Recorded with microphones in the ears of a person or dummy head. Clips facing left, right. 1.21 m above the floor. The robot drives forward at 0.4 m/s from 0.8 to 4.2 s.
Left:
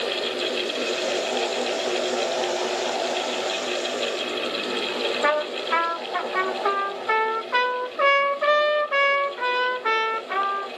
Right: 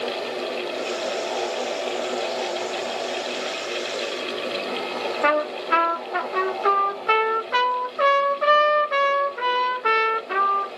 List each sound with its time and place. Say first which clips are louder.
5.2 s a trumpet: right 4 dB; 45° right (ahead or behind), 1.3 m